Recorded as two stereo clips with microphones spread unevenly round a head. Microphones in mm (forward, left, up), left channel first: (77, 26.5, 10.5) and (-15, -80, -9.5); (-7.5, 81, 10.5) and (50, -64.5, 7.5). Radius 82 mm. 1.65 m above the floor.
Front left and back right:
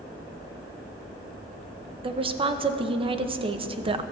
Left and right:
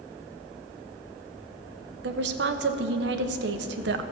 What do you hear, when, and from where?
2.0 s a woman speaking: 75° right, 0.8 m